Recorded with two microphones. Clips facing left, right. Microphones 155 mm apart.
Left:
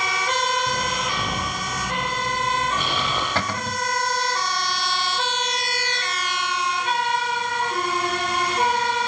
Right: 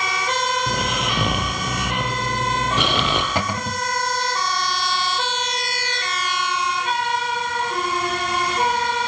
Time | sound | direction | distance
0.7 | snoring | 75° right (ahead or behind) | 4.5 m
3.4 | a cupboard door | 15° right (ahead or behind) | 1.0 m